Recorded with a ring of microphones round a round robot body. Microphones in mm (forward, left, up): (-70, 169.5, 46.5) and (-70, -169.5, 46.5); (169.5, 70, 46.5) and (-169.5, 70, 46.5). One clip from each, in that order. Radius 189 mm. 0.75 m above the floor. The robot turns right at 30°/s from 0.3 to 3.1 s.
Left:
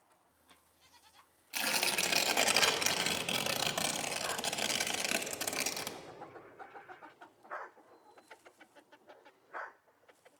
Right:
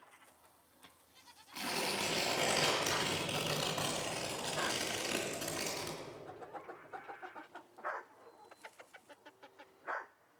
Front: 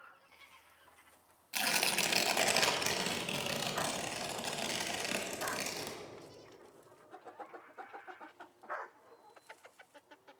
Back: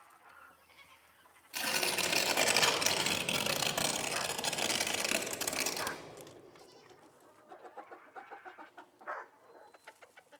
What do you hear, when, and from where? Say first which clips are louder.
1.5 s tearing paper: left 4 dB, front 1 dB; 65° left, 1.5 m; by 6.0 s 115° left, 1.5 m